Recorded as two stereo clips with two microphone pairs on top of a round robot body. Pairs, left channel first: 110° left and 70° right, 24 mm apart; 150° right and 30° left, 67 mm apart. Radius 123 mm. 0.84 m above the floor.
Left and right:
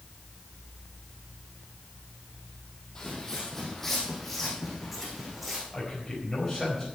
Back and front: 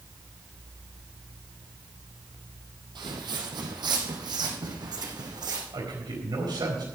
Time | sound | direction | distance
3.0 | footsteps | 40° left | 2 m
5.7 | a man speaking | 25° left | 4.5 m